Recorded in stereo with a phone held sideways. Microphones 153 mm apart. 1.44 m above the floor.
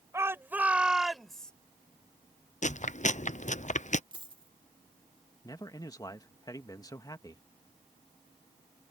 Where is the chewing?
50° left (ahead or behind).